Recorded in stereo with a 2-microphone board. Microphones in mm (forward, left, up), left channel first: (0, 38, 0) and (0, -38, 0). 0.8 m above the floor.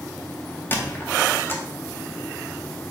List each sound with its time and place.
0.7 s a squeak: 25° left (ahead or behind), 0.7 m